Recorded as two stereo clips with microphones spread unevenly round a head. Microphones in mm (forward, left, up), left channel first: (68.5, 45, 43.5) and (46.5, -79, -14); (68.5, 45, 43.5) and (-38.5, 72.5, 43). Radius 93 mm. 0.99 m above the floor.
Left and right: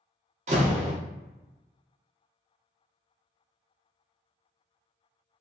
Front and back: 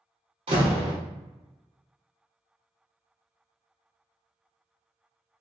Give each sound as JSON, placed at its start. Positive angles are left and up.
{"t": 0.5, "sound": "a door slam", "azimuth_deg": -140, "distance_m": 1.1}